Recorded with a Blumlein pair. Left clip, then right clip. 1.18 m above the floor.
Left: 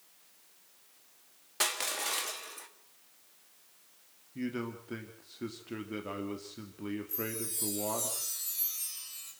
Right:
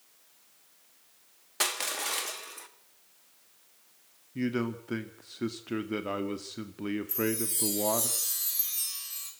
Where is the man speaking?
20° right, 2 m.